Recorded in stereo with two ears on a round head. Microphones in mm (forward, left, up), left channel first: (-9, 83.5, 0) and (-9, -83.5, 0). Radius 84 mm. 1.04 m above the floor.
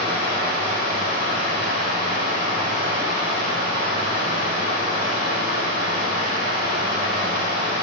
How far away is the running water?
About 4 m.